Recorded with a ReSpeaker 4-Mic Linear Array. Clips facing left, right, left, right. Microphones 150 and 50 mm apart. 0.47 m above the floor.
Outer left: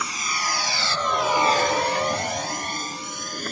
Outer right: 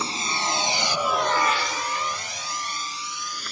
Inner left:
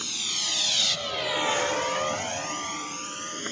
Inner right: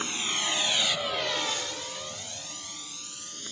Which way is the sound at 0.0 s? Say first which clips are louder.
Outer right 2 dB, inner right 3 dB; 30° right (ahead or behind).